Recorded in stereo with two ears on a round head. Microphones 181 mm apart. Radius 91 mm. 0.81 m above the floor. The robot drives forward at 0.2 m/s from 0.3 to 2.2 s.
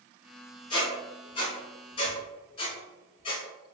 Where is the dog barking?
No dog barking in this recording.